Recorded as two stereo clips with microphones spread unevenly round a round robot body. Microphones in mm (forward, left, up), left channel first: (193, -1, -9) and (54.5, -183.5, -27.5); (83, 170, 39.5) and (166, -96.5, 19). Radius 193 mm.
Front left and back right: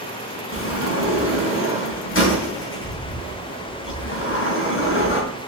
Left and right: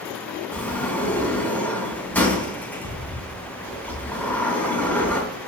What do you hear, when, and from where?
0.5 s a sliding door: 25° left, 4 m